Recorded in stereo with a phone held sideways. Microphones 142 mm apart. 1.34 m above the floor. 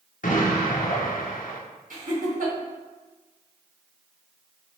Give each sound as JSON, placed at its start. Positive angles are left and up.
{"t": 0.2, "sound": "an explosion", "side_deg": 70, "distance_m": 0.7}
{"t": 1.9, "sound": "laughter", "side_deg": -75, "distance_m": 1.3}